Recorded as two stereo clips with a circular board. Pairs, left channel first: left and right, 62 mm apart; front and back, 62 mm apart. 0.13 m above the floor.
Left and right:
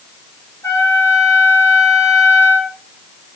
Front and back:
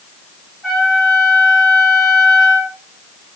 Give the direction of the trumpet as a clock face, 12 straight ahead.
9 o'clock.